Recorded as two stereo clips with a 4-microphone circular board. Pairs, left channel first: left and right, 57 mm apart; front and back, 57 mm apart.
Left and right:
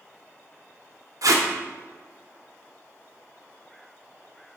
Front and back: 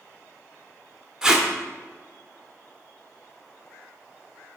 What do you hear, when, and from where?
1.2 s tape being pulled: 100° right, 0.5 m